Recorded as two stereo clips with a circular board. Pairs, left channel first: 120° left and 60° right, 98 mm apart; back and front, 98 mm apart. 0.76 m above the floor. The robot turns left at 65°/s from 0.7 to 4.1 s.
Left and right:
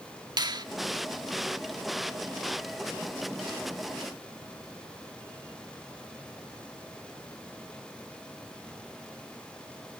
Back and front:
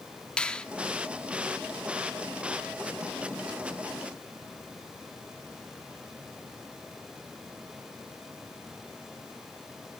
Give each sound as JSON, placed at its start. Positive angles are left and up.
{"t": 0.4, "sound": "a finger snap", "azimuth_deg": -100, "distance_m": 1.4}